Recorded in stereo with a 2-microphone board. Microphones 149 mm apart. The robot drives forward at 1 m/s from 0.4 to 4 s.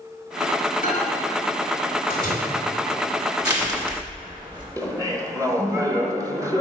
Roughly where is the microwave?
Left.